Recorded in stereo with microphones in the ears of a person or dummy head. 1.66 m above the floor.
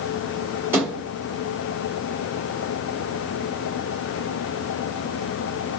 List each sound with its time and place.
0.7 s a thud: 15° right (ahead or behind), 2 m